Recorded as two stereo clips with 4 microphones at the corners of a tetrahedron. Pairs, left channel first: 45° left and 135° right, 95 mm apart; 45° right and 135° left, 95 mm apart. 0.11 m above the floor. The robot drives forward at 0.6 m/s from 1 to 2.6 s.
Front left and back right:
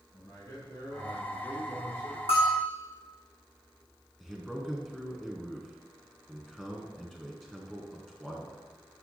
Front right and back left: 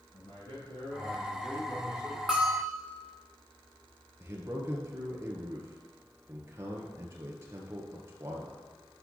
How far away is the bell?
About 1.9 m.